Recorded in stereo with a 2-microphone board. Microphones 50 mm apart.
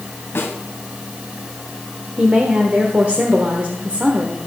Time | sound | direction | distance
0.3 | a snare drum | 50° left (ahead or behind) | 3 m
2.2 | a woman speaking | 30° right (ahead or behind) | 1.2 m